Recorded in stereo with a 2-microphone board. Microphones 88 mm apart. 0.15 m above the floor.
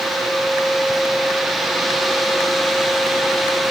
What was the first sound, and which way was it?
Only background noise.